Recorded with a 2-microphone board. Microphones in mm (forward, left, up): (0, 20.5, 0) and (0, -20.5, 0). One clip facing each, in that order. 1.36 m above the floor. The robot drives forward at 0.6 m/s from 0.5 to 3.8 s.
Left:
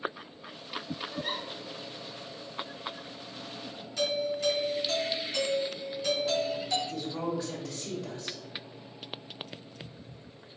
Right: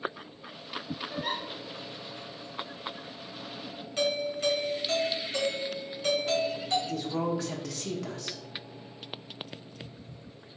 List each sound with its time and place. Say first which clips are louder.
1.1 s a giggle: right 3 dB; 75° right (ahead or behind), 1.7 m; by 1.4 s 80° right, 1.6 m
4.0 s a doorbell: right 1 dB; 40° right (ahead or behind), 1.9 m
6.9 s a woman speaking: right 3 dB; 70° right (ahead or behind), 0.9 m